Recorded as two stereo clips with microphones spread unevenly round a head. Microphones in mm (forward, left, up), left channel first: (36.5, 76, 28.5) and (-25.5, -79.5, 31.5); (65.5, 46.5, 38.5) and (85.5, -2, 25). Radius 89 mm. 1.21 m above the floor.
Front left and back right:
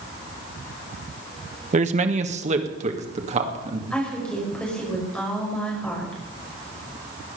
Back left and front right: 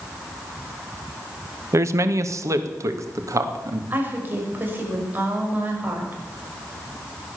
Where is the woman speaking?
15° right, 6 m.